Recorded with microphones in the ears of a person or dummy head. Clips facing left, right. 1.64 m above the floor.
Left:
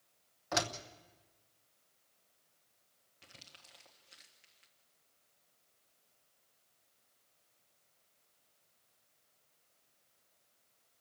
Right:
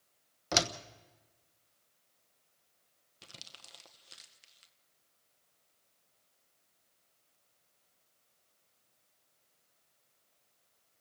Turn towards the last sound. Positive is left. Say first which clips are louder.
# right 4 dB
turn(degrees=-60)  # may be behind; listen again after turning